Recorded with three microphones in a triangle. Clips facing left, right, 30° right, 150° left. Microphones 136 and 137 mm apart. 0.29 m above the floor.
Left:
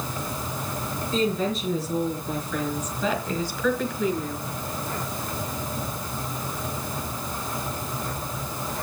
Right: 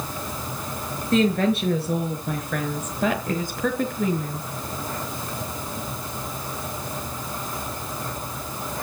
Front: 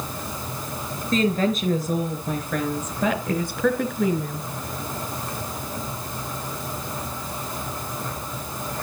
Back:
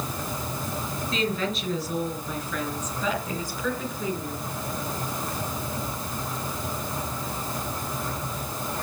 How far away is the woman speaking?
About 4.5 m.